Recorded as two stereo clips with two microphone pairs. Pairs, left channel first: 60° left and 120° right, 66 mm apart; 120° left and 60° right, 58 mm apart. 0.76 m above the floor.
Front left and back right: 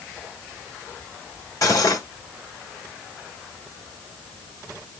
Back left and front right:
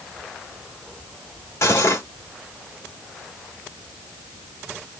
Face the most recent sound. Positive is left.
turn(degrees=90)